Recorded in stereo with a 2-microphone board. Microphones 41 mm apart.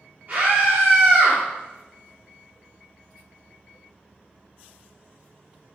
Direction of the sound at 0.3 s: 35° right (ahead or behind).